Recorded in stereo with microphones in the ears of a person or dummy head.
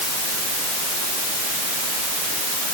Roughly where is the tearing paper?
No tearing paper in this recording.